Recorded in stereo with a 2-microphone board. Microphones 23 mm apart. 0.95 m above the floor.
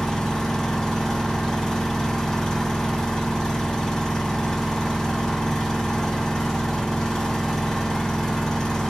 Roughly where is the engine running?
Left.